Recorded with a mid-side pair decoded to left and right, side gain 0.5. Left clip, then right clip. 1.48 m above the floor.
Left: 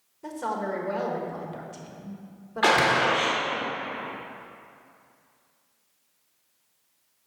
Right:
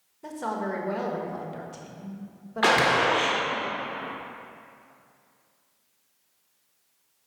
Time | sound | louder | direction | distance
0.2 | a woman speaking | left 1 dB | straight ahead | 1.3 m
2.6 | a gunshot | even | 10° right | 1.5 m